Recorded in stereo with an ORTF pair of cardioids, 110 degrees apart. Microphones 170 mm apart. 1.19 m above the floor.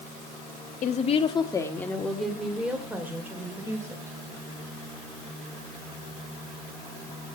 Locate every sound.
0.8 s a woman speaking: 55° left, 1.8 m; by 4.2 s 20° right, 5.5 m